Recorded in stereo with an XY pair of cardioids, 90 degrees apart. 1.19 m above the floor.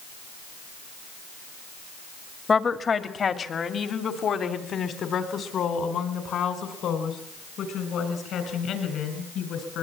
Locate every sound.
2.5 s a woman speaking: 40° left, 1.8 m; by 9.8 s 80° left, 6.5 m